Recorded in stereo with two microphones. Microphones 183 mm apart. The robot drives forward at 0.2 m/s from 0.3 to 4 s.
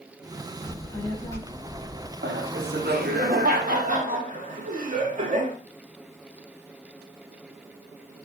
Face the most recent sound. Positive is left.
turn(degrees=-45)  # may be behind; listen again after turning